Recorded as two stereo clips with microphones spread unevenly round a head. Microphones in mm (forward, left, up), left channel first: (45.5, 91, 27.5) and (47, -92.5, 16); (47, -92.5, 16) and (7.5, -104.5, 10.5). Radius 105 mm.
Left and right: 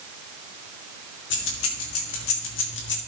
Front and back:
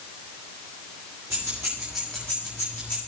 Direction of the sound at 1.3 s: 130° left.